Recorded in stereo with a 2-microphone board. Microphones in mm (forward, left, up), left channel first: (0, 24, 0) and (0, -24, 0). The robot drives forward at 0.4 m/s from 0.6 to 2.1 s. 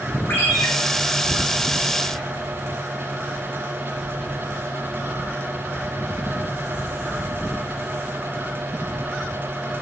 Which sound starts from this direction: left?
A ringtone, at 0.3 s.